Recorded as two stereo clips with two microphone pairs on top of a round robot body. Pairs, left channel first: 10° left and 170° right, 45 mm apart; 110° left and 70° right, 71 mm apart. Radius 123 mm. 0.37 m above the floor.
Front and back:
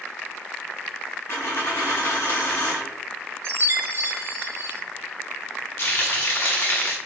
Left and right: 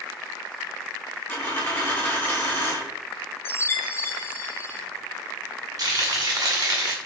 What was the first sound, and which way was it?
A dropped coin, 35° left.